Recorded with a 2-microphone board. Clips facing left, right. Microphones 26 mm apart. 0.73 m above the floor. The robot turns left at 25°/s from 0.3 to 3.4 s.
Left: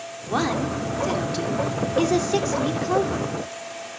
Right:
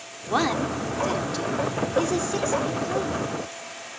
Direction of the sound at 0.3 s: 15° right (ahead or behind).